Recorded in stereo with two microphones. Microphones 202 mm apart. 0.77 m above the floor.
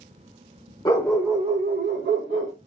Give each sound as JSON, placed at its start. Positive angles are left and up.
{"t": 0.8, "sound": "a dog barking", "side_deg": 15, "distance_m": 0.7}